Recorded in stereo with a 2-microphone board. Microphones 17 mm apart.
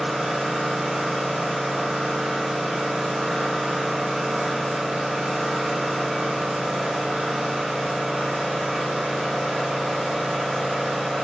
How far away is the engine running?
About 6 m.